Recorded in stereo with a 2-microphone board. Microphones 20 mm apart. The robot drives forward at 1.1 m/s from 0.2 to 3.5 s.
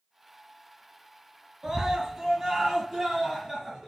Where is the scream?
30° right (ahead or behind), 4.5 m; by 3.9 s 20° right (ahead or behind), 6.5 m.